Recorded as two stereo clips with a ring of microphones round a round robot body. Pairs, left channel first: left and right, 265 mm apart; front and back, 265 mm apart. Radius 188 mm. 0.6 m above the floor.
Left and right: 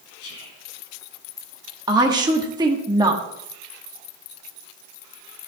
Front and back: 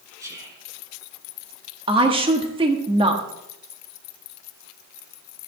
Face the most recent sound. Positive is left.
turn(degrees=-140)